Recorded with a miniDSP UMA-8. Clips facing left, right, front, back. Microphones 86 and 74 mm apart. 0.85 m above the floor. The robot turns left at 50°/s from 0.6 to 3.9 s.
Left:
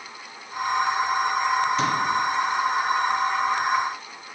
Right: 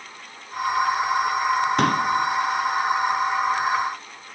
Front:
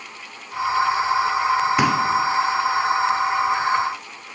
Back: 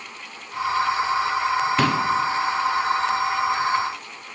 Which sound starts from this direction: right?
A pop, at 1.8 s.